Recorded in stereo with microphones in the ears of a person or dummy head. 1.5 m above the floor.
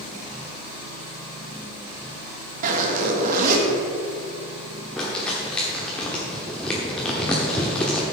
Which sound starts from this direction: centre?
Crumpling, at 5.0 s.